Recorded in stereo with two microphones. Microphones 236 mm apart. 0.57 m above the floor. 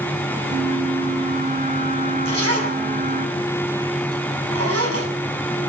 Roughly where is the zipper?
Right.